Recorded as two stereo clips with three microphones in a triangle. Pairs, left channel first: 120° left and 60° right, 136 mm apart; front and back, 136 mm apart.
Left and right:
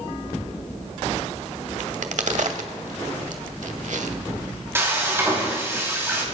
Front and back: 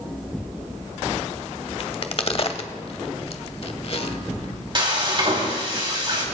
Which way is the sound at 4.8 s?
130° right.